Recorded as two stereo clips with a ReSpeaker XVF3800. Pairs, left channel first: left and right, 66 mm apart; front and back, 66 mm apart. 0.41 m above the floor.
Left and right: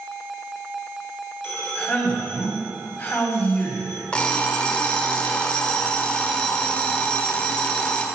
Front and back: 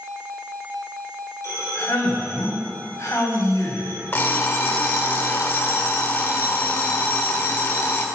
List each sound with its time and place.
1.4 s a man speaking: 25° left, 2.5 m
4.1 s an alarm clock: 25° left, 0.8 m